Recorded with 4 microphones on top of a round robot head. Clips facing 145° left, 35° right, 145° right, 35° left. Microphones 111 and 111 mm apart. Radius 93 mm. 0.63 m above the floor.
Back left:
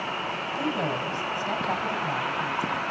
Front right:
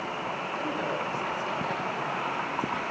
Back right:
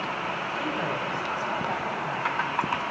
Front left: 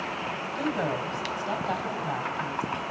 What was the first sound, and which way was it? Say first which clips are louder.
A woman speaking: back left 4 dB, front left 4 dB; 95° left.